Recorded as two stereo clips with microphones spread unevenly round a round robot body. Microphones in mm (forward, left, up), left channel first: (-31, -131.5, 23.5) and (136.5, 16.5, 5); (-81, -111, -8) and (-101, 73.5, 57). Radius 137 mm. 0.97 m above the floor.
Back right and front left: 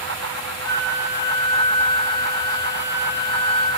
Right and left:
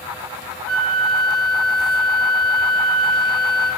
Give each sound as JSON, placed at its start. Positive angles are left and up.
{"t": 0.7, "sound": "a flute", "azimuth_deg": -60, "distance_m": 0.8}